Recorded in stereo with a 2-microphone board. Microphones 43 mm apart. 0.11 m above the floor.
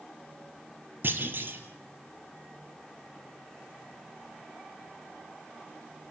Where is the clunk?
55° right (ahead or behind), 3 m.